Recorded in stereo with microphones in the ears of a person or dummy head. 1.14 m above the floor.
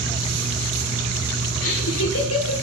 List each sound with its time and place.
1.6 s laughter: 80° left, 3.5 m